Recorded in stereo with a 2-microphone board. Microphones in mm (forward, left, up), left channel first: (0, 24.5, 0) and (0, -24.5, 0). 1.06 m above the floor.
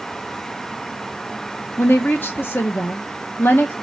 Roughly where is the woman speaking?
Left.